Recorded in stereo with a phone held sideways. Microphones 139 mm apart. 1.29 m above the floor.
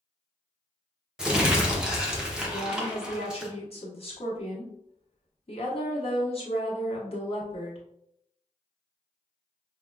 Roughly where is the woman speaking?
Left.